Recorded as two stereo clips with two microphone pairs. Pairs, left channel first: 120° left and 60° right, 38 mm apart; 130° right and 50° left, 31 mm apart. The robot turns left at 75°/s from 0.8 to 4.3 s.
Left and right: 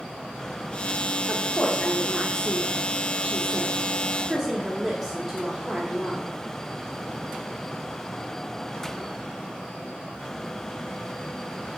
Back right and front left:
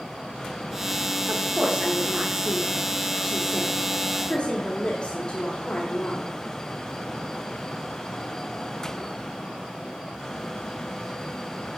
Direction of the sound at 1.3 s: 95° left.